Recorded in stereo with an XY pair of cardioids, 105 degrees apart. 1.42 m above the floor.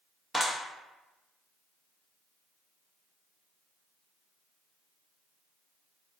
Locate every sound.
0.3 s a clap: 5° left, 0.8 m